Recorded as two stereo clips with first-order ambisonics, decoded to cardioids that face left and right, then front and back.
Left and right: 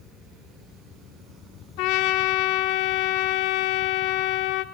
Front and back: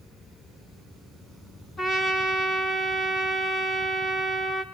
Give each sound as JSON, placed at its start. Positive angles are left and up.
{"t": 1.8, "sound": "a trumpet", "azimuth_deg": 70, "distance_m": 3.5}